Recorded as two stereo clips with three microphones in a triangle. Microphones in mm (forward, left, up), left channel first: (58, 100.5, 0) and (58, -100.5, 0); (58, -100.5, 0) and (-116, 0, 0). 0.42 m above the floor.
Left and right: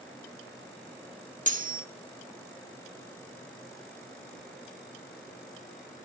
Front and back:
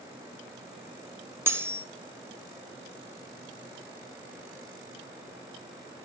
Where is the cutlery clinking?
135° right, 1.1 m.